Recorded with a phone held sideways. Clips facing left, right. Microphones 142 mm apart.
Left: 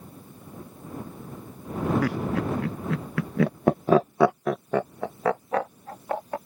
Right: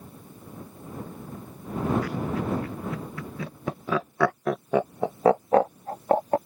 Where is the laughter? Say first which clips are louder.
Left 3 dB; 80° left; by 6.4 s 45° right (ahead or behind).